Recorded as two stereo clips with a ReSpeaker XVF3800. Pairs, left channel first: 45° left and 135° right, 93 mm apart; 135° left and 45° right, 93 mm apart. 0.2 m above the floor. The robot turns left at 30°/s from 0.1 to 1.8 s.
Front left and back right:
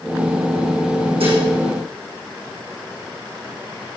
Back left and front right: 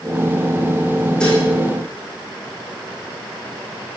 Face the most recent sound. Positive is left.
turn(degrees=-160)